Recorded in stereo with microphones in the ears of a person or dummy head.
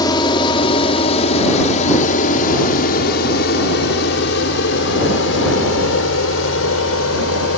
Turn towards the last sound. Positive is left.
turn(degrees=80)